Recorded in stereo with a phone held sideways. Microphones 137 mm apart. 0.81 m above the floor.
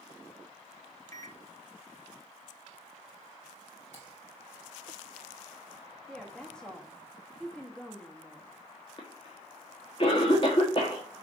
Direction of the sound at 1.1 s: 20° left (ahead or behind).